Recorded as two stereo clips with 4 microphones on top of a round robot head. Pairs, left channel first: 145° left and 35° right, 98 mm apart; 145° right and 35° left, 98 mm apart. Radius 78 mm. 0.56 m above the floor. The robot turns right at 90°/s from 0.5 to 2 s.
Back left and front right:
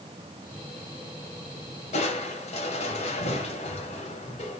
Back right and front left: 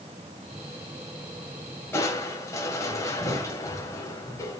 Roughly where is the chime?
No chime in this recording.